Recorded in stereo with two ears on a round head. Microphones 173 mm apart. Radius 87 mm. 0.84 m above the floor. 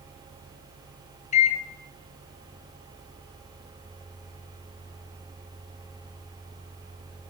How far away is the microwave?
About 0.8 m.